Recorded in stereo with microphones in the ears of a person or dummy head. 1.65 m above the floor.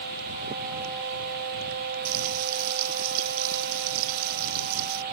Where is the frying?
70° right (ahead or behind).